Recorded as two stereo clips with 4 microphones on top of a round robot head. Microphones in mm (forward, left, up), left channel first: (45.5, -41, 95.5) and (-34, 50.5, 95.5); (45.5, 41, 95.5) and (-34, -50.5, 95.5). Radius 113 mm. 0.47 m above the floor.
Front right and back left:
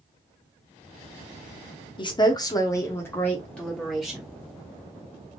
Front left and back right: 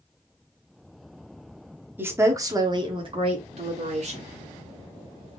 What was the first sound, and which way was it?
A woman speaking, 65° right.